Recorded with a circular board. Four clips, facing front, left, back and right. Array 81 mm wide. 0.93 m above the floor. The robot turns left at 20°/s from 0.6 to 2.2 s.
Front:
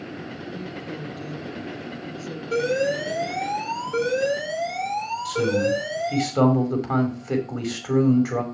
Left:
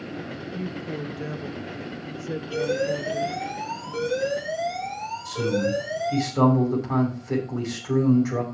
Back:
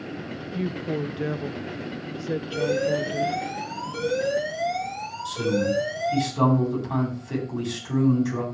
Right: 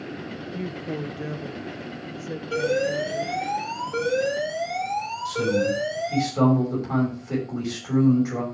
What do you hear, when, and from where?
0.5 s a woman speaking: 160° right, 0.7 m; by 3.5 s 165° left, 0.7 m
2.5 s an alarm: 25° right, 4 m
5.2 s a man speaking: 5° left, 5.5 m